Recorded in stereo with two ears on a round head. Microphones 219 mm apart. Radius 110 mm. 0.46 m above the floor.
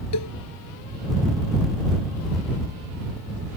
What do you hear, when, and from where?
0.1 s a cowbell: 85° left